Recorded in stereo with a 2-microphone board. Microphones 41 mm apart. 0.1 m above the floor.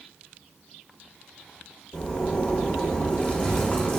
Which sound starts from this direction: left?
A zipper, at 1.9 s.